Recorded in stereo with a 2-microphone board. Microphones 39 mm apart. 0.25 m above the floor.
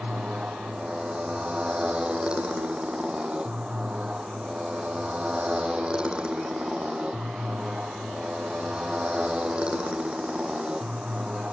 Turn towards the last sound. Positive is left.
turn(degrees=-25)  # may be behind; listen again after turning